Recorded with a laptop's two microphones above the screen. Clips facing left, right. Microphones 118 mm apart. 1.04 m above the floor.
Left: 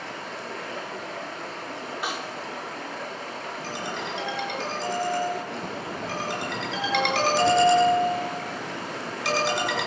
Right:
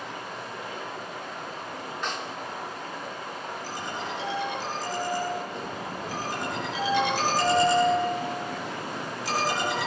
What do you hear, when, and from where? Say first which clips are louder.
0.0 s running water: left 1 dB; 85° left, 8 m
2.0 s a snare drum: left 1 dB; 10° left (ahead or behind), 3.5 m
3.6 s a ringtone: left 3 dB; 80° left, 8.5 m